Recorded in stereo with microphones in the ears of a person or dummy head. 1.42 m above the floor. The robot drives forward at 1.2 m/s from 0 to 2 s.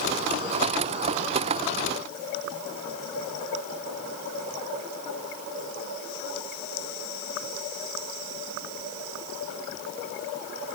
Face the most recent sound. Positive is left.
No sound to turn to.